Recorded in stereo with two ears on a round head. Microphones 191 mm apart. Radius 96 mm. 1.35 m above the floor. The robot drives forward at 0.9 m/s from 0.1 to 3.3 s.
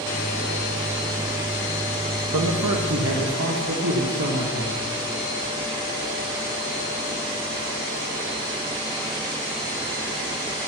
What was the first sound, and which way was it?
A man speaking, 80° right.